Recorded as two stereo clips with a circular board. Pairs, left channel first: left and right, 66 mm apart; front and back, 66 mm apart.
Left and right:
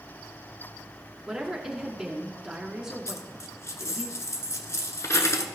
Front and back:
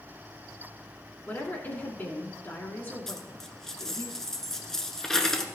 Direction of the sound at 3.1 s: 80° left.